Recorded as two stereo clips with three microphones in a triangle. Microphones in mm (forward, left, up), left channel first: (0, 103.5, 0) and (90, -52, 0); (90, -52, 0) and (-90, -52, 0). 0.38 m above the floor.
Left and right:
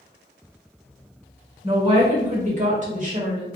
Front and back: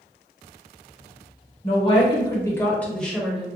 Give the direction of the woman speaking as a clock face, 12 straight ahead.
1 o'clock.